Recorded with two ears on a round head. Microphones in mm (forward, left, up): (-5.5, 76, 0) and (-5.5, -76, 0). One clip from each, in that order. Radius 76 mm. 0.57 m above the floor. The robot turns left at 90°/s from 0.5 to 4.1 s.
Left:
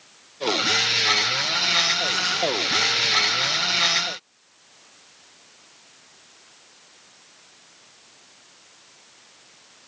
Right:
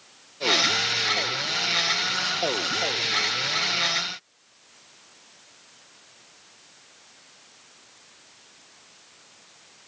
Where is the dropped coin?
No dropped coin in this recording.